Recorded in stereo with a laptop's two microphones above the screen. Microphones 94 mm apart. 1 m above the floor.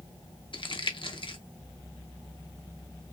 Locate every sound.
0.5 s crumpling: 60° left (ahead or behind), 0.6 m